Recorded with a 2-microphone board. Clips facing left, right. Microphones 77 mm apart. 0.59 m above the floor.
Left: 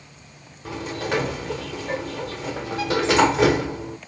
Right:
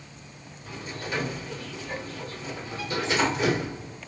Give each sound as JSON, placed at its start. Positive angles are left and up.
{"t": 0.7, "sound": "a sliding door", "side_deg": 80, "distance_m": 0.8}